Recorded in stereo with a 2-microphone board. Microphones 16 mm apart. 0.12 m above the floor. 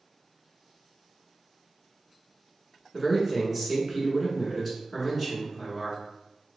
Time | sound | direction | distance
2.9 | a man speaking | centre (ahead or behind) | 1.1 m